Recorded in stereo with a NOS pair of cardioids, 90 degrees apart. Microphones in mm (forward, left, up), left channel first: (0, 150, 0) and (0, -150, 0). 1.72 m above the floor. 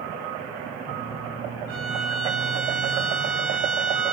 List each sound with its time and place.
1.7 s a violin: 65° right, 2.5 m